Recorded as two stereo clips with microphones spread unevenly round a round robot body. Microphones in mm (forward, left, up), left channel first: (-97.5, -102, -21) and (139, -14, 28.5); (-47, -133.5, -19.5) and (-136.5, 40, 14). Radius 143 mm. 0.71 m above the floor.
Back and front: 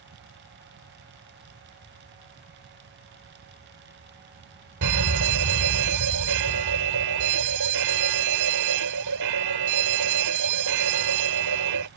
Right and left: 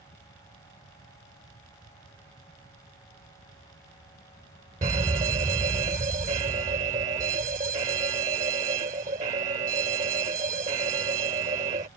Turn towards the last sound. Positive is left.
turn(degrees=50)